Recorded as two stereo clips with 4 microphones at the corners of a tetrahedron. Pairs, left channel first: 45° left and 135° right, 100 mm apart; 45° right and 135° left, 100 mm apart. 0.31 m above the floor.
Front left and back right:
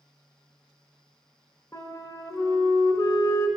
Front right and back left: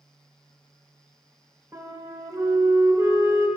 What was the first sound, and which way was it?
A flute, 85° left.